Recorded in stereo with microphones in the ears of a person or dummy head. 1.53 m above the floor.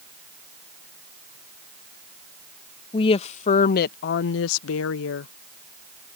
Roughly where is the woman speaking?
Left.